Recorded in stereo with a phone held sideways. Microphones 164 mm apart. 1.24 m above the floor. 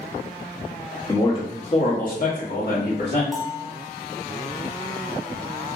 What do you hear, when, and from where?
1.1 s a man speaking: 20° left (ahead or behind), 0.8 m; by 3.2 s 70° left (ahead or behind), 1.4 m
3.3 s a bell: centre (ahead or behind), 0.5 m